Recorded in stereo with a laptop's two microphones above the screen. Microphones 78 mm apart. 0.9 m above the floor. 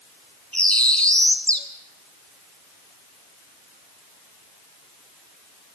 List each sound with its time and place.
0.5 s a bird: 15° left (ahead or behind), 0.8 m